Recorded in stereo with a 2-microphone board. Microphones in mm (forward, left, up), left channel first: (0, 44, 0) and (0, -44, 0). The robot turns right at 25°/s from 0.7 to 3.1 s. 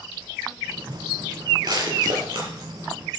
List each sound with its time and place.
1.6 s crushing: 55° right (ahead or behind), 6 m; by 2.5 s 75° right (ahead or behind), 6 m